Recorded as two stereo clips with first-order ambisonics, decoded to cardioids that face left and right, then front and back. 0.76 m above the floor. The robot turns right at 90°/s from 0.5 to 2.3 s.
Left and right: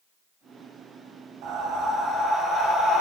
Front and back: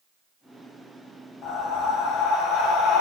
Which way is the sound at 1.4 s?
60° right.